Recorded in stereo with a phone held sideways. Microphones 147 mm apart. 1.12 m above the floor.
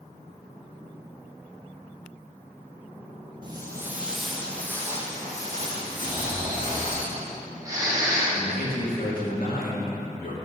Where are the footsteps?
30° right (ahead or behind), 1.7 m; by 7.0 s 35° left (ahead or behind), 5 m.